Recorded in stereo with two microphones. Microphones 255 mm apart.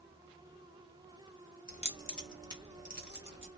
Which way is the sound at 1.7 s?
35° left (ahead or behind).